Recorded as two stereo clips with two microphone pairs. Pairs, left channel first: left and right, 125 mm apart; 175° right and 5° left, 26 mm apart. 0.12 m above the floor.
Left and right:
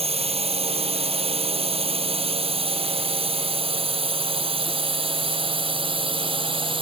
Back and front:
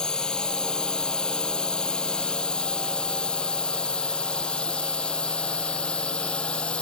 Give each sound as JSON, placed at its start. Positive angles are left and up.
{"t": 0.0, "sound": "a drone", "azimuth_deg": -120}